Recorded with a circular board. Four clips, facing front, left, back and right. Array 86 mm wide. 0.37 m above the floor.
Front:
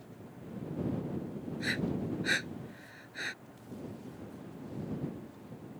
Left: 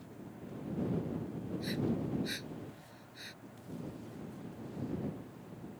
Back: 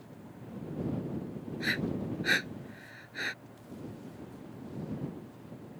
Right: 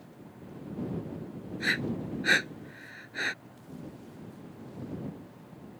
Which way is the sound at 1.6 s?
100° right.